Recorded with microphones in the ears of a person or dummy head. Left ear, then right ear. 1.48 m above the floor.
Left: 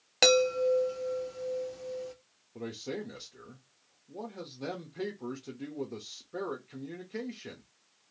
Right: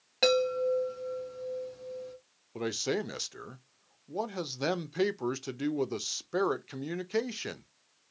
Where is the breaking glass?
No breaking glass in this recording.